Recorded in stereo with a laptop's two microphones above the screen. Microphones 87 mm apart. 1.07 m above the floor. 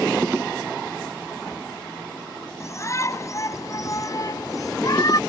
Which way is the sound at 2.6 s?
35° left (ahead or behind).